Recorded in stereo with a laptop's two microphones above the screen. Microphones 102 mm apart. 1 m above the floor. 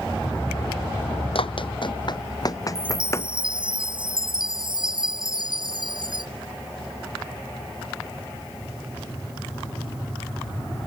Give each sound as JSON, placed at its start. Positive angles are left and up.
{"t": 1.4, "sound": "running footsteps", "side_deg": 65}
{"t": 2.8, "sound": "a chime", "side_deg": -55}